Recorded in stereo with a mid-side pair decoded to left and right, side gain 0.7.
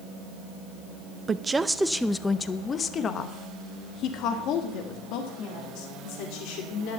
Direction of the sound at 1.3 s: 25° right.